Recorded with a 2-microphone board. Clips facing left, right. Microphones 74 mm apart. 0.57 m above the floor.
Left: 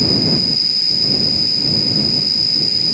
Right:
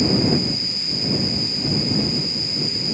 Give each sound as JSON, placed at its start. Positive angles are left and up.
{"t": 0.0, "sound": "an insect", "side_deg": 75}